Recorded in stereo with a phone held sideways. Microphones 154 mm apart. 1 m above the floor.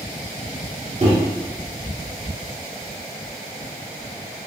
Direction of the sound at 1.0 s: 45° right (ahead or behind).